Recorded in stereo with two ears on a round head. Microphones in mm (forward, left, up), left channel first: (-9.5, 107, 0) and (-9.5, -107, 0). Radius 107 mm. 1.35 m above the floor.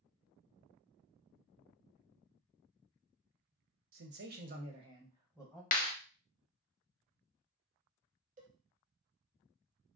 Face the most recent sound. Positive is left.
turn(degrees=-35)  # may be behind; listen again after turning